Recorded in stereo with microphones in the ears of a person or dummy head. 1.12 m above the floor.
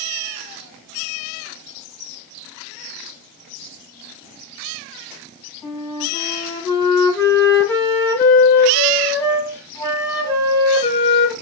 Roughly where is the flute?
Centre.